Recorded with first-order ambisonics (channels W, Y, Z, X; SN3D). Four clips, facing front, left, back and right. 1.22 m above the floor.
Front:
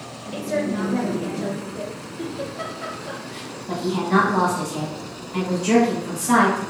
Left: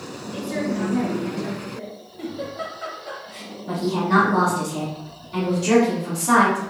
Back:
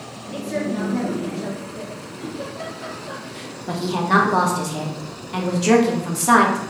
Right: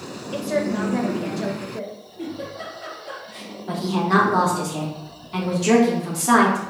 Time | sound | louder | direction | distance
0.3 | a woman speaking | right 3 dB, front 1 dB | 75° right | 0.9 m
2.2 | a giggle | left 2 dB, front 2 dB | 40° left | 1.2 m
3.7 | a woman speaking | even, back 2 dB | 165° right | 0.9 m